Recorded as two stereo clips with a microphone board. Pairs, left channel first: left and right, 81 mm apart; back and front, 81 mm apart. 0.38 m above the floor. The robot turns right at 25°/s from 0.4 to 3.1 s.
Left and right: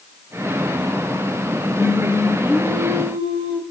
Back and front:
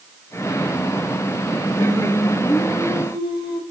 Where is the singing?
175° left, 4.5 m; by 3.6 s 150° right, 4.5 m.